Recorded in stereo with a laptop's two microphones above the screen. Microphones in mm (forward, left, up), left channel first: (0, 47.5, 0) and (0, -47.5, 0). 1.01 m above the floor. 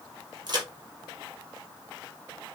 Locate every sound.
0.5 s a crack: 45° right (ahead or behind), 5.5 m